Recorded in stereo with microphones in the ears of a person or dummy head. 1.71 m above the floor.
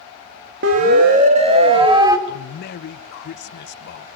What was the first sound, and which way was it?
A siren, 65° right (ahead or behind).